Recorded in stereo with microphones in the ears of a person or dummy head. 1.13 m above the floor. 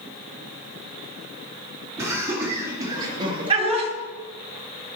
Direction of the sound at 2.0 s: 15° right (ahead or behind).